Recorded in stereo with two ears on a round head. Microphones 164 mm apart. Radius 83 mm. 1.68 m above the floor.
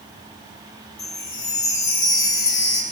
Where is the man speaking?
I don't hear a man speaking.